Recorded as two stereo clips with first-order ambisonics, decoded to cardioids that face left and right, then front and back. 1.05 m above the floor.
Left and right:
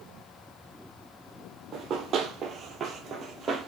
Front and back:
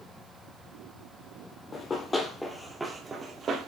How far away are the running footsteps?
About 1.3 m.